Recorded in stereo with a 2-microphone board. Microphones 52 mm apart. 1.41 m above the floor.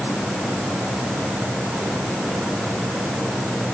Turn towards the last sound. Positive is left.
No sound to turn to.